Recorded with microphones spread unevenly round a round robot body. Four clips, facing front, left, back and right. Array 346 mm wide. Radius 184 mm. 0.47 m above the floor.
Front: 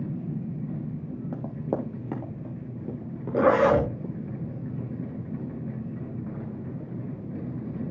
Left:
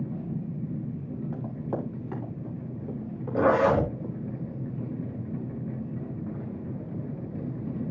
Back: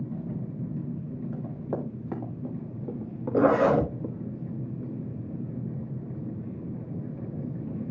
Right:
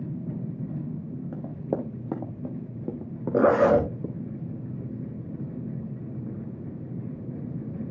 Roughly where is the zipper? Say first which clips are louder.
Right 3 dB, front 1 dB; right.